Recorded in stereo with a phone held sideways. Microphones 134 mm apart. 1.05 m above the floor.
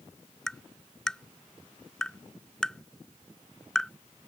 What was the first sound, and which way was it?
Tapping, 5° left (ahead or behind).